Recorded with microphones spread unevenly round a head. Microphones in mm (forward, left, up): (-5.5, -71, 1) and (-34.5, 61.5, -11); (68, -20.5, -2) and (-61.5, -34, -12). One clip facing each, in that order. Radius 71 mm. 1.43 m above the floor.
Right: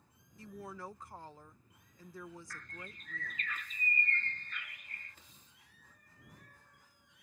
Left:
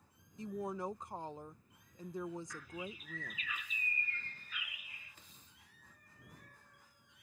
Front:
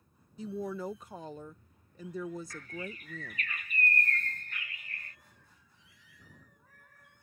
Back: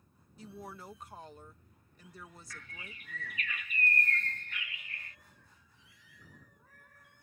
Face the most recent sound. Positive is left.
turn(degrees=15)